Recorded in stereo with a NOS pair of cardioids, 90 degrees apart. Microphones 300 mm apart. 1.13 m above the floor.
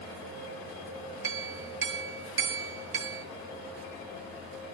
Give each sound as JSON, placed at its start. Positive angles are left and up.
{"t": 1.2, "sound": "a clink", "azimuth_deg": -40, "distance_m": 1.0}